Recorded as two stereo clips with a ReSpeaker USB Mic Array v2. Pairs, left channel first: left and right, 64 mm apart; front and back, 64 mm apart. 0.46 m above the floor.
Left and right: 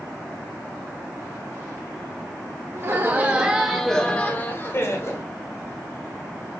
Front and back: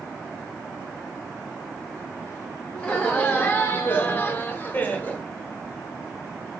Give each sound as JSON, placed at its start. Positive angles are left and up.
{"t": 2.8, "sound": "laughter", "azimuth_deg": -65, "distance_m": 1.0}